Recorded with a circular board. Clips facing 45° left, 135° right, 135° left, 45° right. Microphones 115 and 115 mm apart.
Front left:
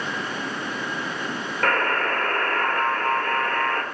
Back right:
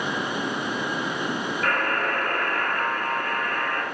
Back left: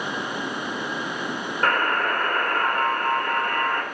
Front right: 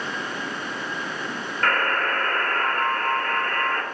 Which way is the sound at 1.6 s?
65° left.